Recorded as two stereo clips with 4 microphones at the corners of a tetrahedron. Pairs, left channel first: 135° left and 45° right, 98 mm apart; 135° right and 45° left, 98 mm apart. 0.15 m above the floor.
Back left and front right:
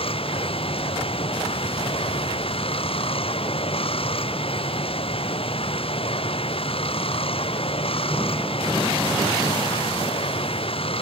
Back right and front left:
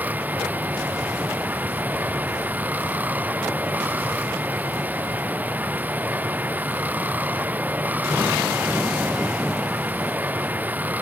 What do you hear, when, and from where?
0.0 s running water: 120° left